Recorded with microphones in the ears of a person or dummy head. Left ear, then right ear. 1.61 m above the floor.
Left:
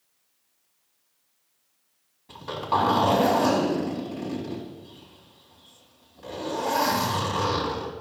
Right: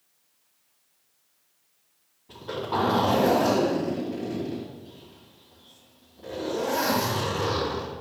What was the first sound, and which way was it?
A zipper, 60° left (ahead or behind).